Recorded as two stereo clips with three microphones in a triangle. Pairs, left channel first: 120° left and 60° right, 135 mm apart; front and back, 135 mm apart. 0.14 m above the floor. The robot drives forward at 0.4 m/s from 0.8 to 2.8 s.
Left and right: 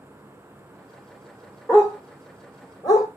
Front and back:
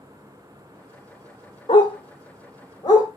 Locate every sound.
1.7 s a dog barking: 50° left, 1.9 m; by 3.1 s 65° left, 1.6 m